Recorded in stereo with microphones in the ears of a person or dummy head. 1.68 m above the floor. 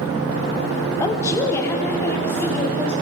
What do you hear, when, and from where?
1.0 s a woman speaking: 15° left (ahead or behind), 0.8 m; by 2.9 s 10° left (ahead or behind), 2 m